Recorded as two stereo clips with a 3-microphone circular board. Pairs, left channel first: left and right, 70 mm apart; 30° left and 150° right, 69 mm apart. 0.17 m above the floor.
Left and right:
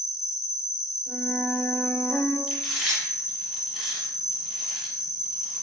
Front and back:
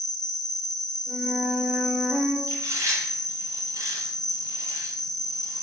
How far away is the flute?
About 2 m.